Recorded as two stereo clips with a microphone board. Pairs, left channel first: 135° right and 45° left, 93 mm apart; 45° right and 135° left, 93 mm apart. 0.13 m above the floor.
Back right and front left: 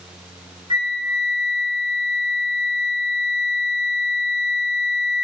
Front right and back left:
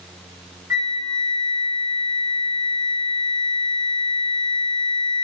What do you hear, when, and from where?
0.7 s a flute: 75° left, 4 m